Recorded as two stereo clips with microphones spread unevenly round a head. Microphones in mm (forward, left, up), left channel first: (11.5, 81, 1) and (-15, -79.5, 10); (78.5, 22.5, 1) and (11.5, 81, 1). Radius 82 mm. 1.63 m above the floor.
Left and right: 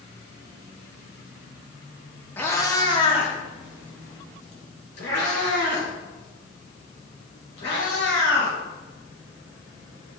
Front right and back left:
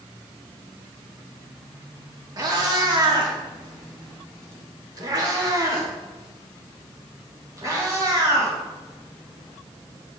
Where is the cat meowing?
155° left, 1.3 m; by 8.6 s 85° left, 4.5 m.